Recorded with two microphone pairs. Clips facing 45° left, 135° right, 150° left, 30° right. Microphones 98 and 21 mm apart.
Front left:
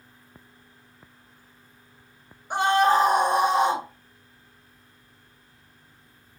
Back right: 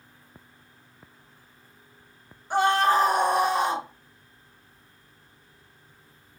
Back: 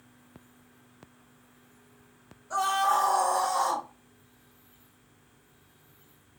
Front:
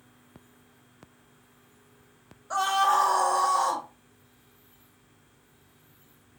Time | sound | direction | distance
2.5 | a scream | 20° right | 1.2 m